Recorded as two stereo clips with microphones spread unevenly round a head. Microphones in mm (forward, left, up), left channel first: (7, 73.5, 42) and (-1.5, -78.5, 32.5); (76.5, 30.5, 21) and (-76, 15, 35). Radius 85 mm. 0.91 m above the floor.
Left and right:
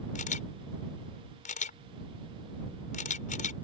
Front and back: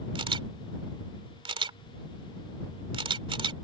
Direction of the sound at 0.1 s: 130° left.